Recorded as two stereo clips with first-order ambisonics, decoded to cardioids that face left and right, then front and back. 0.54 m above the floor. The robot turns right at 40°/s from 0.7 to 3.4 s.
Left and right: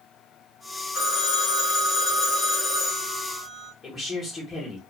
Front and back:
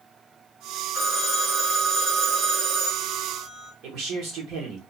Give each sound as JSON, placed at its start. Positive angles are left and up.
{"t": 0.9, "sound": "a phone ringing", "azimuth_deg": 70, "distance_m": 1.2}
{"t": 3.8, "sound": "a man speaking", "azimuth_deg": 160, "distance_m": 1.2}